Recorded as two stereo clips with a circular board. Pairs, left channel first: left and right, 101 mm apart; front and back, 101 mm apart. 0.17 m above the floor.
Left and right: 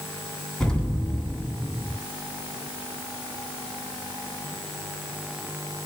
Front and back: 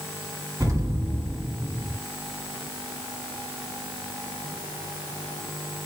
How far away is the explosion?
About 1.5 m.